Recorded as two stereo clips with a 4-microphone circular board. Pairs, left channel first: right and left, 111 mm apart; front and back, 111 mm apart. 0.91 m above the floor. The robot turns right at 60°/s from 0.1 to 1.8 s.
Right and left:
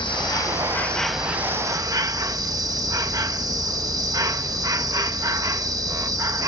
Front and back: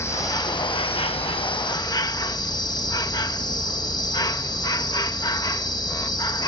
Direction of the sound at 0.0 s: 60° right.